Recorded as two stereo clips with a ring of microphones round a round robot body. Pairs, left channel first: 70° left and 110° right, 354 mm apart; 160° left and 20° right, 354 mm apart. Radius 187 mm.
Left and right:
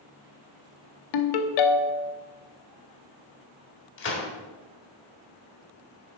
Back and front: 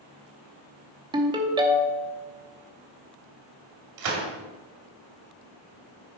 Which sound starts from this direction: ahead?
A gunshot, at 4.0 s.